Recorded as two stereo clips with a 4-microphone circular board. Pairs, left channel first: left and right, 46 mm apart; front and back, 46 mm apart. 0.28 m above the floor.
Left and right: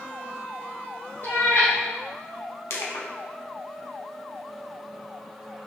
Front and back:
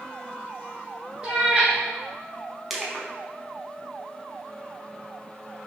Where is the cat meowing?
110° left, 1.4 m.